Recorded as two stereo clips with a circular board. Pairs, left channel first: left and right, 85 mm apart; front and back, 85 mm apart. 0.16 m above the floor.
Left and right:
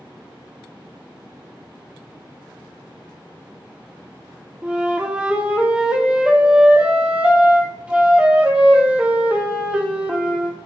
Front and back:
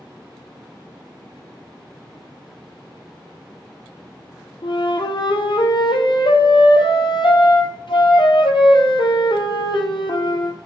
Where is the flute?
15° right, 1.0 m.